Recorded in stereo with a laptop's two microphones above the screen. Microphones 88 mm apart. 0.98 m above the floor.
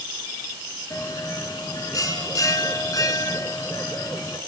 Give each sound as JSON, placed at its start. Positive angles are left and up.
{"t": 0.9, "sound": "a bell", "side_deg": 45, "distance_m": 2.0}